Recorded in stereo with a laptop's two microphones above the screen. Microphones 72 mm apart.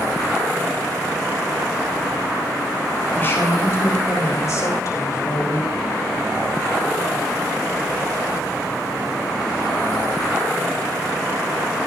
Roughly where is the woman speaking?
Left.